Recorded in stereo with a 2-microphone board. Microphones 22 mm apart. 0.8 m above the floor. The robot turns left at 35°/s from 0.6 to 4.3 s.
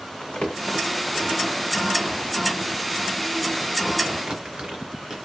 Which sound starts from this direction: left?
Crumpling, at 0.2 s.